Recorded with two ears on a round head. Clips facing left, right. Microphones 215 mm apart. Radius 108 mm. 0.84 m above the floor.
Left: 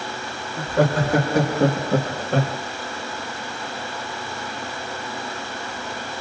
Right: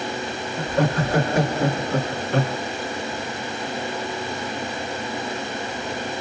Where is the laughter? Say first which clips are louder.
Left 2 dB; 60° left (ahead or behind), 2 m; by 2.6 s 30° left (ahead or behind), 1.1 m.